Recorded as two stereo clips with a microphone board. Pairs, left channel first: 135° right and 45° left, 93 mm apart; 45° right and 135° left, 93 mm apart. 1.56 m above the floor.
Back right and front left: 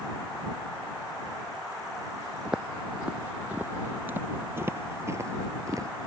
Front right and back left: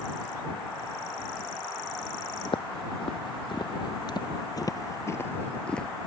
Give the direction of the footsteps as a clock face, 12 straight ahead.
1 o'clock.